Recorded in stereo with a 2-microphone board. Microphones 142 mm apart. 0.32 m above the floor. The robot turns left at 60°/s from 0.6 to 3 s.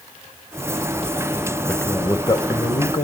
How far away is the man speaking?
About 1.2 m.